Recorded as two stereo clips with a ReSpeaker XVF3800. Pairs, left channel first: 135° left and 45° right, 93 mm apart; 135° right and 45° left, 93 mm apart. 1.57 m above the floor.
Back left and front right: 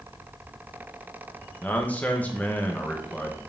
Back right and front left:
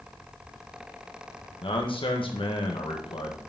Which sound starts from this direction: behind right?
A man speaking, at 1.6 s.